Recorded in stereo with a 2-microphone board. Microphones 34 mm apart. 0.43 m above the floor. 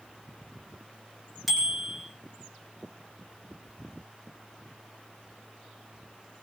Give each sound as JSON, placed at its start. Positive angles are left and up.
{"t": 1.5, "sound": "a bicycle bell", "side_deg": 0, "distance_m": 4.5}